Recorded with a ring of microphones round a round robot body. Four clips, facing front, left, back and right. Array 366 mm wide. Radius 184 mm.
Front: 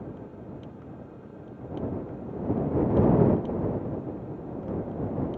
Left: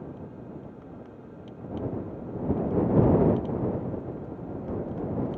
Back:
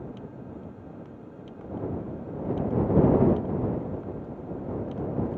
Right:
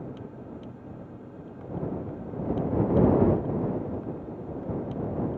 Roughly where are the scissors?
I don't hear scissors.